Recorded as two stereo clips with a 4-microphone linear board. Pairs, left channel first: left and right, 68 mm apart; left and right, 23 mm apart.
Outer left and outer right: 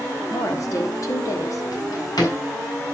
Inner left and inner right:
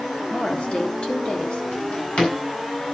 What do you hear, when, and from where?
0.3 s a woman speaking: 55° left (ahead or behind), 3.5 m
1.7 s a drawer: 70° left (ahead or behind), 7 m